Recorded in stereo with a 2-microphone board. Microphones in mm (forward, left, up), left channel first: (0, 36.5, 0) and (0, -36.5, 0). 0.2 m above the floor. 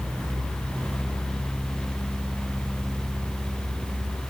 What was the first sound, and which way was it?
Only background noise.